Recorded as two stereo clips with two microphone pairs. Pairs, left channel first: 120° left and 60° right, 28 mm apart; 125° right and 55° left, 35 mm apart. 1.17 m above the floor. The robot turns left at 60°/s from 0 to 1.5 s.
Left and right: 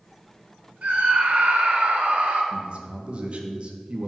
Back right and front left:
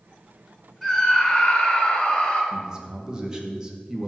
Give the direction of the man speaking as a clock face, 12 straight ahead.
12 o'clock.